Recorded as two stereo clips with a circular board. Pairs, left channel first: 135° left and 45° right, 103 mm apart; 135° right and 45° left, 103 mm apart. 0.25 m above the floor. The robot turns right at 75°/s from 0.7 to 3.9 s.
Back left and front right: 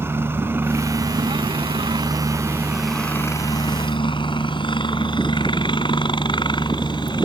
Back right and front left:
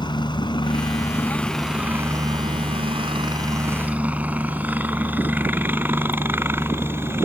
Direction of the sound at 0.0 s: 110° right.